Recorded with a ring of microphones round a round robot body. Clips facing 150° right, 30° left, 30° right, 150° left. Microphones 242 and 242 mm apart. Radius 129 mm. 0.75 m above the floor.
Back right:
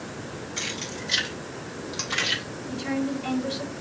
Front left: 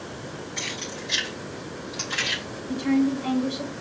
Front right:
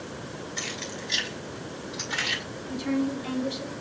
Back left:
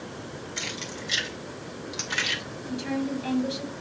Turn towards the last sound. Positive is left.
turn(degrees=145)